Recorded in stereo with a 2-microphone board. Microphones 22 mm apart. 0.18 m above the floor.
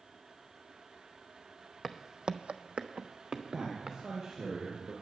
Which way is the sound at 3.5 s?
45° right (ahead or behind).